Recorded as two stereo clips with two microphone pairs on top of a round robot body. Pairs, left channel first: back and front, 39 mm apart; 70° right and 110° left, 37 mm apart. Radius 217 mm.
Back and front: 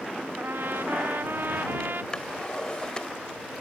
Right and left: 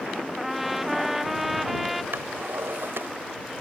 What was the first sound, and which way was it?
A trumpet, 30° left.